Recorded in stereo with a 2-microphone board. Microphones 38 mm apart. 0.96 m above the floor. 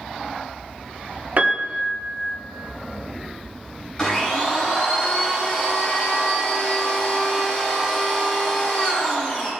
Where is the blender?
25° left (ahead or behind), 3 m.